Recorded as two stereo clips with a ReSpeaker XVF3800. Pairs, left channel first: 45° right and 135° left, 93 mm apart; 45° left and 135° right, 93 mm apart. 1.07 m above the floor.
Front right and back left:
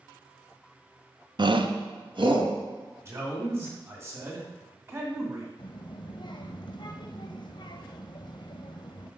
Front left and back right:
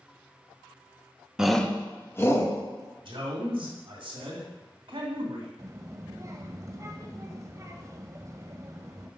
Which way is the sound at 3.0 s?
165° right.